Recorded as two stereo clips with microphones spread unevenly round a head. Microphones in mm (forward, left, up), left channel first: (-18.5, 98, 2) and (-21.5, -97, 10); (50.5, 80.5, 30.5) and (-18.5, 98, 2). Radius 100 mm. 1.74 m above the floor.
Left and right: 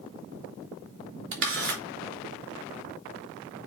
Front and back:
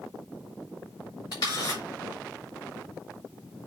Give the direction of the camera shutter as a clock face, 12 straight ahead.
2 o'clock.